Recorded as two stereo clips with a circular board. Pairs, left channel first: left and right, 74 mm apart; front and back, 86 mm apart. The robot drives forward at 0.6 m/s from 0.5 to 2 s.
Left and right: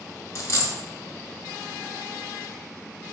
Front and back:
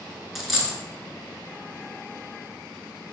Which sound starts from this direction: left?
A dropped coin, at 0.3 s.